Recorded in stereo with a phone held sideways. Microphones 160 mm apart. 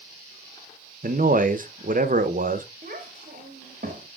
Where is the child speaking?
55° right (ahead or behind), 1.9 m.